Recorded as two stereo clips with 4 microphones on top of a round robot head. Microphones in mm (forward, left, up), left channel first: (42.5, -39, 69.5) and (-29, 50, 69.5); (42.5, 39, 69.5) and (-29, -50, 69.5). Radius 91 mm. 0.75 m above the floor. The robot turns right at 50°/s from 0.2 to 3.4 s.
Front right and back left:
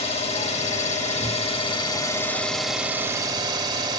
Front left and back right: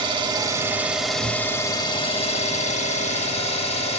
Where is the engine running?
85° right, 1.7 m; by 4.0 s 75° left, 1.7 m.